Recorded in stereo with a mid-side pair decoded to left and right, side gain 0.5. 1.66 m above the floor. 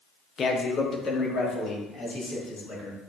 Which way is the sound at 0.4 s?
40° left.